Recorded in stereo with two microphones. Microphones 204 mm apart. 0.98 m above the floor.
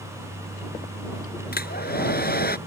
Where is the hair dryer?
50° left (ahead or behind).